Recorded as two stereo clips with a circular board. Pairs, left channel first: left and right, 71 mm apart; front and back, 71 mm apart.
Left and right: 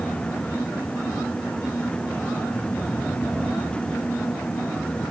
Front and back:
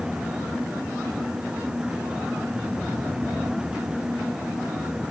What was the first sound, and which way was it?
Only background noise.